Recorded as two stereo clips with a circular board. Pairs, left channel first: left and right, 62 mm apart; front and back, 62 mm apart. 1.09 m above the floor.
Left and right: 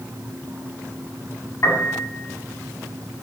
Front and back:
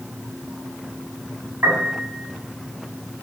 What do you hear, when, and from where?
1.6 s a piano: 125° left, 8 m